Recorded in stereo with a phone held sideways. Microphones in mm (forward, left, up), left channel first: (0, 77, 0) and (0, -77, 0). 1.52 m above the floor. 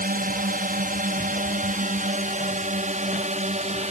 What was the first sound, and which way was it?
A drone, 65° right (ahead or behind).